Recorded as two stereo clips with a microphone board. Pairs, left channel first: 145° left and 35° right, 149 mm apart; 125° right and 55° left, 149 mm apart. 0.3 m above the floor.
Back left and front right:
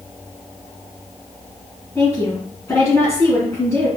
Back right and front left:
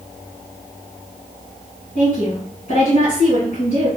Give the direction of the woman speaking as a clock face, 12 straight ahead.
5 o'clock.